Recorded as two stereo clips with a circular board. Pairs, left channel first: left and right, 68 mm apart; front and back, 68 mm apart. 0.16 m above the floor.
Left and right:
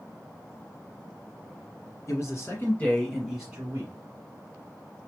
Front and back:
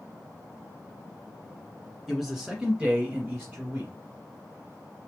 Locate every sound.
2.1 s a man speaking: 90° left, 1.7 m; by 3.9 s 130° right, 1.5 m